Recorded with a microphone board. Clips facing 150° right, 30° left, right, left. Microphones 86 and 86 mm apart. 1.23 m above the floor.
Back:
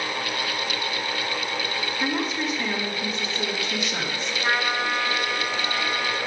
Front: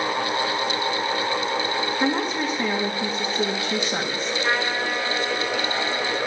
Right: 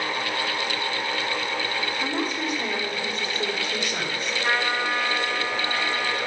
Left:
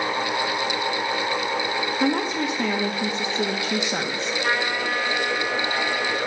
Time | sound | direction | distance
2.0 | a woman speaking | 85° left | 1.4 m
4.4 | a trumpet | 115° left | 5.5 m